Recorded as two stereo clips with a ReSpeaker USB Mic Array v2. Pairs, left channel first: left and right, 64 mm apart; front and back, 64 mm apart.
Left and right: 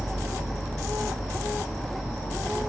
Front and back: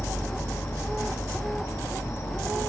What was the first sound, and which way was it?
An insect, straight ahead.